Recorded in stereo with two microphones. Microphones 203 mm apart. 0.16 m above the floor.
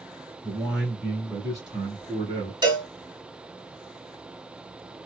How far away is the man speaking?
About 1.4 m.